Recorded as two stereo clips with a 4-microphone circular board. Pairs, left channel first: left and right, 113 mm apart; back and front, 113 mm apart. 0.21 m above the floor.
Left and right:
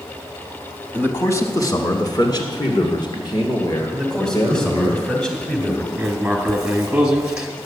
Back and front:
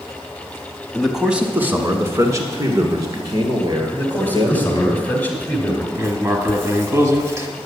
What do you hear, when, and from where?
0.9 s a man speaking: 100° left, 1.1 m; by 4.9 s 45° left, 4 m
3.9 s a man speaking: 160° left, 1.6 m
6.0 s writing: 20° right, 1.3 m